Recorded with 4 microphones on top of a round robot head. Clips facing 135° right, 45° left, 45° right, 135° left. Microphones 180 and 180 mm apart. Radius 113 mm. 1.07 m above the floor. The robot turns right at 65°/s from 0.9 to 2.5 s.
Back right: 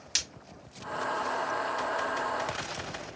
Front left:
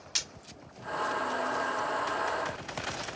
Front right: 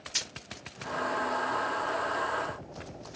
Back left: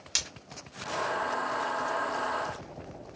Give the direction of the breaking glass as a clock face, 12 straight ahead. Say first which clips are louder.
Back right 1 dB, back left 1 dB; 6 o'clock.